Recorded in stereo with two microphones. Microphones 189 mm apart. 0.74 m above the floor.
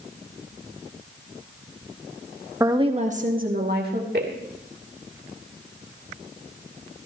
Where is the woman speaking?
15° right (ahead or behind), 0.9 m; by 4.4 s 65° right (ahead or behind), 2.5 m.